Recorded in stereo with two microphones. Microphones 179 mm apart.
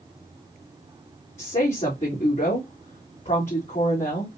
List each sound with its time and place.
1.4 s a woman speaking: 40° left (ahead or behind), 1.7 m